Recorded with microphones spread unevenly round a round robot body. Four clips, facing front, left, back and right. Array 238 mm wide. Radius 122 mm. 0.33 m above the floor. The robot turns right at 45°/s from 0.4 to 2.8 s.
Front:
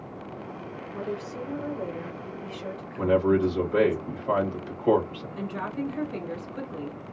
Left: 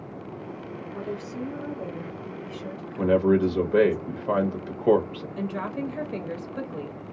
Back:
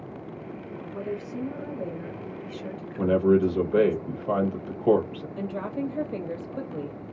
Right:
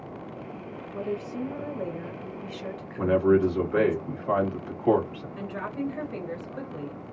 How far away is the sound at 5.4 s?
About 1.4 m.